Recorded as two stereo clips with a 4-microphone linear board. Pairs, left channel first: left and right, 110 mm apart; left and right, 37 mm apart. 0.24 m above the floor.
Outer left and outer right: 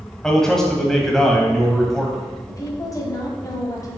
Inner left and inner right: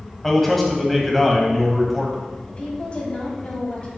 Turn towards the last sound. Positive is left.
turn(degrees=35)  # may be behind; listen again after turning